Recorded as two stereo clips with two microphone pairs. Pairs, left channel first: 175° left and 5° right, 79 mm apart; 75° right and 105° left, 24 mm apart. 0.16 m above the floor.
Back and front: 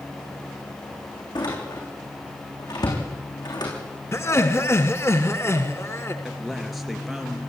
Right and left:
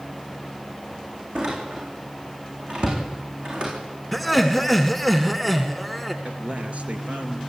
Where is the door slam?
150° left, 7.5 m.